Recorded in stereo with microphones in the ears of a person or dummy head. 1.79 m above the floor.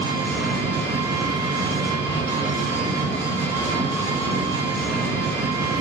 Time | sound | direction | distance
0.0 | an engine running | 15° left (ahead or behind) | 1.7 m